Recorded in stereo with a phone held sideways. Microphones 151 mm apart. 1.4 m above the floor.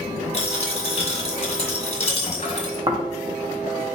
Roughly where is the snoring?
Right.